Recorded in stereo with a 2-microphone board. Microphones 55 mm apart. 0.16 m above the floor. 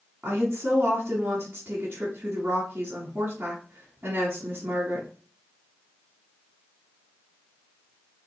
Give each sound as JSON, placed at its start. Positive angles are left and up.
{"t": 0.2, "sound": "a woman speaking", "side_deg": -35, "distance_m": 1.3}